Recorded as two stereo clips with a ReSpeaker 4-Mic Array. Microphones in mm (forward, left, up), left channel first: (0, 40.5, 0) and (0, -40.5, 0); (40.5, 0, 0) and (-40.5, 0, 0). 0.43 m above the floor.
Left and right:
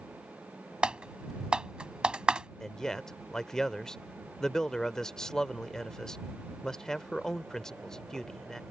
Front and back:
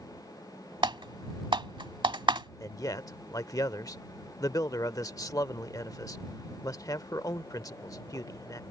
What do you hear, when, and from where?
0.8 s typing on a keyboard: 170° right
2.6 s a man speaking: 10° left